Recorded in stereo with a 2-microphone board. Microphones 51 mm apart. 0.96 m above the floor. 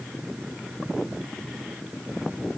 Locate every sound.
Only background noise.